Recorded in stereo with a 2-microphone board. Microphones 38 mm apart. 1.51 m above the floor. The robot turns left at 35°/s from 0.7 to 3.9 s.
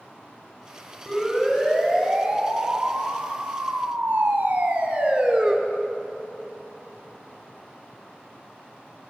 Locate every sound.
1.1 s a siren: 10° left (ahead or behind), 6.5 m; by 5.5 s 25° right (ahead or behind), 3 m